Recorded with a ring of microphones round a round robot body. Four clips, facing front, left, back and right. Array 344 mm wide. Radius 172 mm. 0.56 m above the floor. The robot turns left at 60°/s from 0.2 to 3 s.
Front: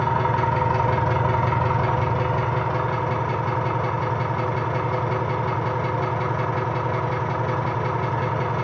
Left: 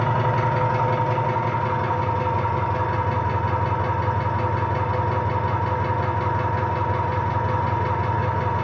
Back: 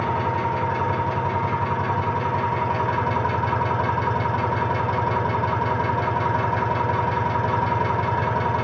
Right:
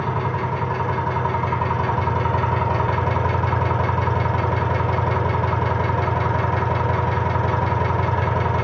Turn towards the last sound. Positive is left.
turn(degrees=-95)